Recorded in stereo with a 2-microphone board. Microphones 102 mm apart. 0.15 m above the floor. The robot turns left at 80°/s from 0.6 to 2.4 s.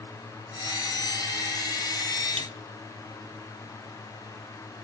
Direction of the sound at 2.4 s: 65° right (ahead or behind).